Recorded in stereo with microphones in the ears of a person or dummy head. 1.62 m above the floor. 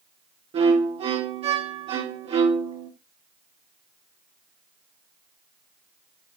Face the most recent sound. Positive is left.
turn(degrees=-25)  # may be behind; listen again after turning